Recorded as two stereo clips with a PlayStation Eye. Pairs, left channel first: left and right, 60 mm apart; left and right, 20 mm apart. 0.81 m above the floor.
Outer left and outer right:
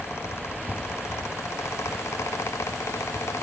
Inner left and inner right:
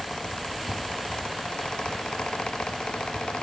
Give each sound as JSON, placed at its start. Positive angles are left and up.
{"t": 0.7, "sound": "a thud", "side_deg": 80, "distance_m": 2.0}